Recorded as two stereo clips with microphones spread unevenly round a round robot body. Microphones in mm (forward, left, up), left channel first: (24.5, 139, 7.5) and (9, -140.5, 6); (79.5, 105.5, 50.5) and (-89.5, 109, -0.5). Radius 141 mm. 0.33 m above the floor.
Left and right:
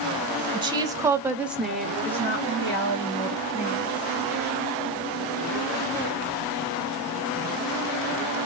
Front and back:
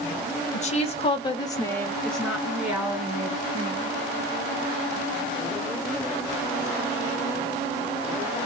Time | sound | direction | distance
0.5 | a woman speaking | 35° right | 1.3 m